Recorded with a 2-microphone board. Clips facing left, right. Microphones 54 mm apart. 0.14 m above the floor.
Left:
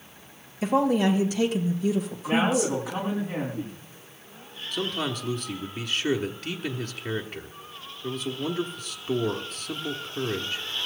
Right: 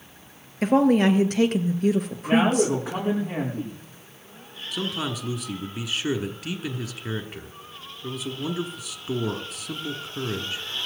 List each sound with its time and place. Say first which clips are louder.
0.6 s a woman speaking: right 4 dB; 60° right (ahead or behind), 2.5 m
2.2 s a man speaking: right 4 dB; 45° right (ahead or behind), 9.5 m
4.7 s a man speaking: even; 10° right (ahead or behind), 1.4 m